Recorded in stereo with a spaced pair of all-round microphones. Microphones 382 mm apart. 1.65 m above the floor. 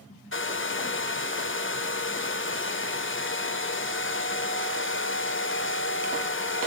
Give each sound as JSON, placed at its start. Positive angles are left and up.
{"t": 0.3, "sound": "a hair dryer", "side_deg": 30, "distance_m": 0.5}